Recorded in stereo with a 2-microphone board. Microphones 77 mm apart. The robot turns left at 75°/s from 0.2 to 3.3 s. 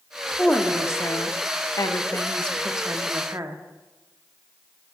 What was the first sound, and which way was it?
A woman speaking, 175° left.